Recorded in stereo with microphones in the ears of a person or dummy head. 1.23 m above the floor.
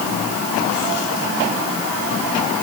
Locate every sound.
Only background noise.